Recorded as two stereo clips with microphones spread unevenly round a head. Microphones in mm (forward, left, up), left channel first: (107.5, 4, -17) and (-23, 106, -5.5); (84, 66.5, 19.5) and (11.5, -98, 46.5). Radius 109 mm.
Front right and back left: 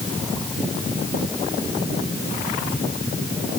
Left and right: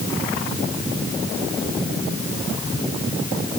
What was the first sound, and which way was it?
Only background noise.